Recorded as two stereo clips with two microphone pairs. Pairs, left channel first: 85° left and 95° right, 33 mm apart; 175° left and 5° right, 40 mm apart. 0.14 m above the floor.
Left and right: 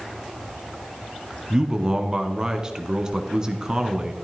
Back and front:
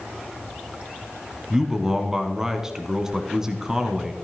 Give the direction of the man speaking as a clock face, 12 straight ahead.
2 o'clock.